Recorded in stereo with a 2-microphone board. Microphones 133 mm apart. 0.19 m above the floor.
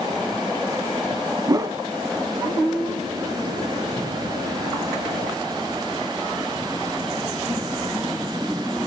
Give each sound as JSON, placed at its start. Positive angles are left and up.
{"t": 1.5, "sound": "a whoosh", "side_deg": -30, "distance_m": 0.6}